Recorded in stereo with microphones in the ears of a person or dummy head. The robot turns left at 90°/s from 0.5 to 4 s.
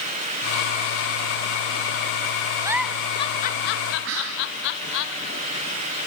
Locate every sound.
2.6 s a giggle: 15° right (ahead or behind), 1.6 m; by 5.0 s 65° left (ahead or behind), 1.6 m
4.0 s whispering: 70° right (ahead or behind), 1.6 m